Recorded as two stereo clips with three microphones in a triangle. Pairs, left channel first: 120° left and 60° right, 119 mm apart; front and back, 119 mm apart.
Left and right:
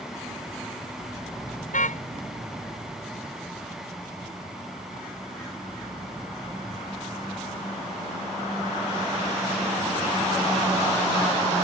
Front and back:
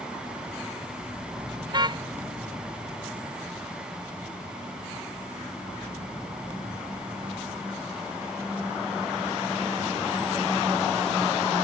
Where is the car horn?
125° left.